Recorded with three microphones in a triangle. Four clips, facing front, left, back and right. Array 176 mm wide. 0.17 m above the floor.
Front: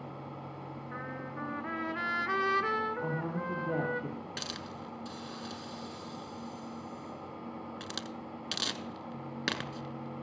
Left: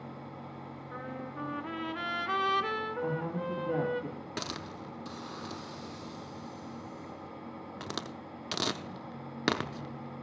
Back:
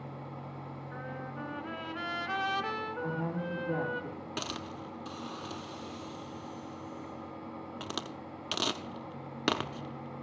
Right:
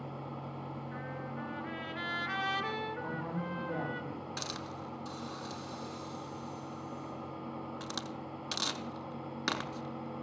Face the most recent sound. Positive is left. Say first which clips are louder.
# left 2 dB, back 3 dB
turn(degrees=110)